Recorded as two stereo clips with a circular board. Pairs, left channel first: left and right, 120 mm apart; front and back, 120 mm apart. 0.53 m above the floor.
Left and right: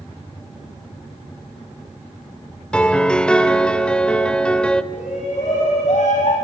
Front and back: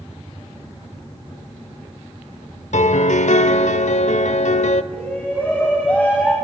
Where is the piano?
10° left, 1.1 m.